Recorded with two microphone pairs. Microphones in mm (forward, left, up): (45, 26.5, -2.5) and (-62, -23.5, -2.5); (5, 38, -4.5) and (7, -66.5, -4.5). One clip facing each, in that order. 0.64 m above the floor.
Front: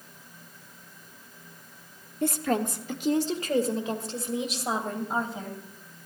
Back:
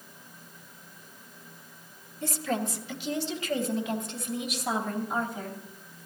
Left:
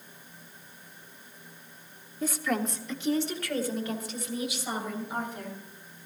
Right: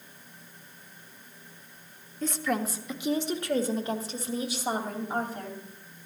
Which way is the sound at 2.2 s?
10° left.